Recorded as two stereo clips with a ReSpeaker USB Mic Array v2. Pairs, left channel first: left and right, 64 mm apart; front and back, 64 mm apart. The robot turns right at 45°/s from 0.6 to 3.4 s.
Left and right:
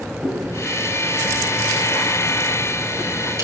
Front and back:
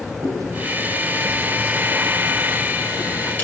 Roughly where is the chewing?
Behind.